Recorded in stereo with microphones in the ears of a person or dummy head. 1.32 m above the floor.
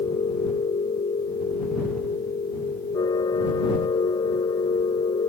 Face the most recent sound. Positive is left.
turn(degrees=20)  # may be behind; listen again after turning